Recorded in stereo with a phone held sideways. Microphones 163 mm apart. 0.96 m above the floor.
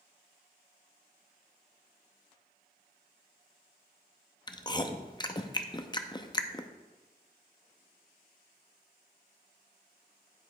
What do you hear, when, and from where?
4.5 s chewing: 30° left (ahead or behind), 0.5 m